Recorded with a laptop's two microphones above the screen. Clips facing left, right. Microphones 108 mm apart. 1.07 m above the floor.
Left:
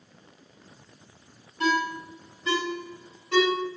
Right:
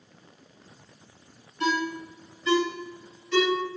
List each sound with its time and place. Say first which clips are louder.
1.6 s a ringtone: left 1 dB; 50° left (ahead or behind), 1.8 m